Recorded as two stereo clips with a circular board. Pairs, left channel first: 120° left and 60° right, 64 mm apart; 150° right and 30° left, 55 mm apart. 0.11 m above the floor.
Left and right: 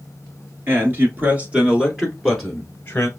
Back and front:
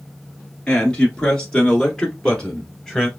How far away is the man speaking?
About 1.4 m.